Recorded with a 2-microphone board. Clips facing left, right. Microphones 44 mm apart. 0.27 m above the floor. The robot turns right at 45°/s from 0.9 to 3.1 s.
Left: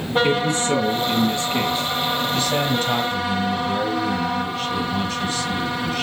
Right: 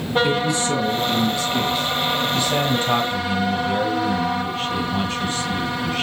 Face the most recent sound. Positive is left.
turn(degrees=-155)